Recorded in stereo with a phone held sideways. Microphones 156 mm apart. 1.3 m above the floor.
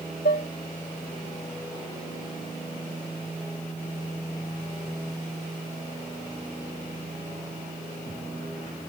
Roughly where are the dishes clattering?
Left.